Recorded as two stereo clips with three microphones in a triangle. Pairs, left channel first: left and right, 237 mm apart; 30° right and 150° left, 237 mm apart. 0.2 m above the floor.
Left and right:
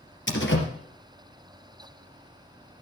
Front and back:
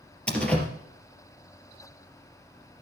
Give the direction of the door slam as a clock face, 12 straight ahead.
10 o'clock.